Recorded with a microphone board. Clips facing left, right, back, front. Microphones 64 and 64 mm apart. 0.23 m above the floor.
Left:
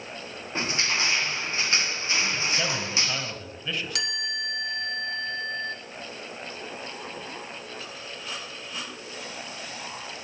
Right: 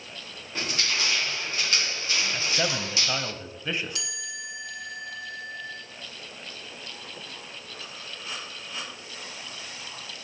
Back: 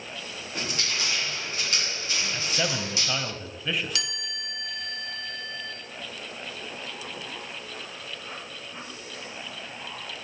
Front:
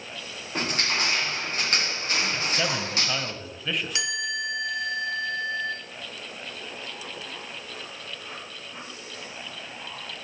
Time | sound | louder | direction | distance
0.6 | crushing | left 2 dB, front 5 dB | 30° left | 1.7 m
2.3 | a man speaking | even, front 2 dB | 95° right | 1.0 m
4.0 | a chime | left 6 dB, front 6 dB | 65° left | 2.5 m